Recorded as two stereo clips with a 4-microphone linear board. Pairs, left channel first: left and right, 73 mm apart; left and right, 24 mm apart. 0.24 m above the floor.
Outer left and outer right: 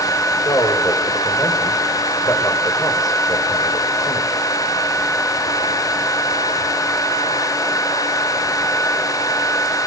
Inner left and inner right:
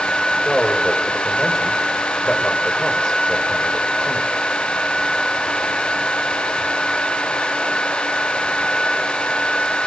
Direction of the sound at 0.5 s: 50° left (ahead or behind).